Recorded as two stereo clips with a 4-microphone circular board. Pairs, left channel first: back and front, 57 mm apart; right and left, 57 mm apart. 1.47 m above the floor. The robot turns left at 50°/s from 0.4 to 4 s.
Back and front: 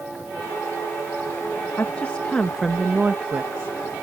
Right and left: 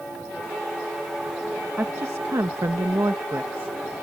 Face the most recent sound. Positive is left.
turn(degrees=25)